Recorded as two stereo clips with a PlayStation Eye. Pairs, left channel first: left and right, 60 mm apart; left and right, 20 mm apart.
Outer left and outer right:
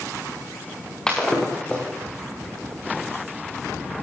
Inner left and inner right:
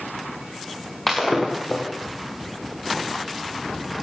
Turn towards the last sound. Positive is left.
turn(degrees=10)  # may be behind; listen again after turning